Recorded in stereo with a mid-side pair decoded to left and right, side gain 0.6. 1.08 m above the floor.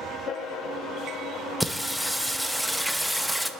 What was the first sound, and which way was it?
Singing, straight ahead.